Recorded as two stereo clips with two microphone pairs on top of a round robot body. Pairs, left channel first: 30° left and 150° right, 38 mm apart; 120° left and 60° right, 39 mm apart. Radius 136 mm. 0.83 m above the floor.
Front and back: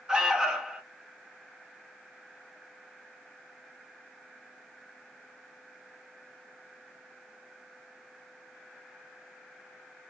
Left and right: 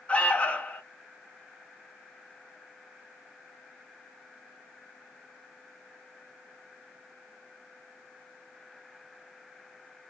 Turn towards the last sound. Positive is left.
turn(degrees=145)